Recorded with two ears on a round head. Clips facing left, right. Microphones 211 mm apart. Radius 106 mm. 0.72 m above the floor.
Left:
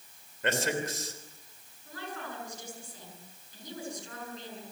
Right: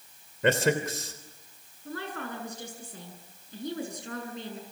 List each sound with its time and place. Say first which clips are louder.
0.4 s a man speaking: right 6 dB; 65° right (ahead or behind), 3 m
1.9 s a woman speaking: right 5 dB; 55° right (ahead or behind), 8 m